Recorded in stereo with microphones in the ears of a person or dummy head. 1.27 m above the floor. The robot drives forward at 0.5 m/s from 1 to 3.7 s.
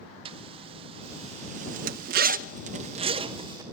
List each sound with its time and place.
0.2 s a zipper: 30° right (ahead or behind), 0.8 m; by 3.6 s 25° right (ahead or behind), 0.9 m